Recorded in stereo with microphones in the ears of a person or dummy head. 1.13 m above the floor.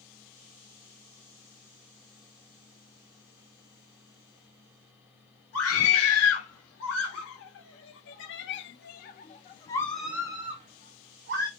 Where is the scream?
75° left (ahead or behind), 2.5 m; by 11.5 s 55° right (ahead or behind), 0.9 m.